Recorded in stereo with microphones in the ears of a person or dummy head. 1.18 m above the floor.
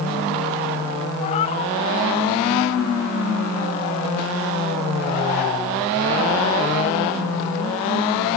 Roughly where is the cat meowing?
Left.